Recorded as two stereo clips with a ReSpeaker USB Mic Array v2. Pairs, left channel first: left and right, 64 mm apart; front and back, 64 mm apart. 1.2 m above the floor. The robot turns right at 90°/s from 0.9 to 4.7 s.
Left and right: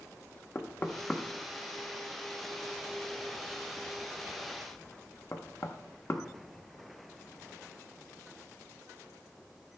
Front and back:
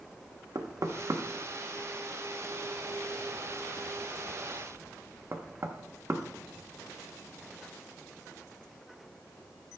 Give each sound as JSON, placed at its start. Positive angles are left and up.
{"t": 0.6, "sound": "knocking", "azimuth_deg": 150, "distance_m": 0.8}